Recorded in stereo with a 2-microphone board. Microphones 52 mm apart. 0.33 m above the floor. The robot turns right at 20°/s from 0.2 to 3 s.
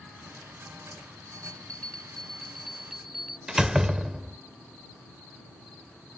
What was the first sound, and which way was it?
A bell, 150° left.